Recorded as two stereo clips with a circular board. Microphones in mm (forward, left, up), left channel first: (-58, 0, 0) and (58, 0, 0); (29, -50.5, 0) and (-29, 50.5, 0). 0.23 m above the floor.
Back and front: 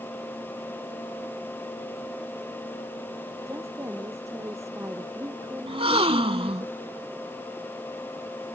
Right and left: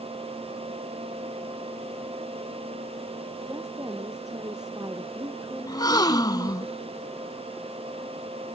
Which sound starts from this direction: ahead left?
A woman speaking, at 3.5 s.